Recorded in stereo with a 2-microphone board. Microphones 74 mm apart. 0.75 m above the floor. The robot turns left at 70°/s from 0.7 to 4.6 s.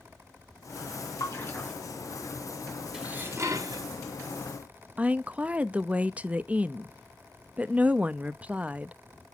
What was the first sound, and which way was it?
A splash, 50° left (ahead or behind).